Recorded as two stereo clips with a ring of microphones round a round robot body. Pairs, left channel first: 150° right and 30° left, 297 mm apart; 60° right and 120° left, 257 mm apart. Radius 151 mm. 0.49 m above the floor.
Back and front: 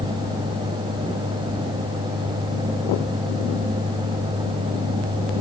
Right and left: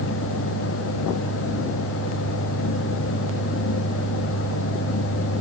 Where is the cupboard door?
I don't hear a cupboard door.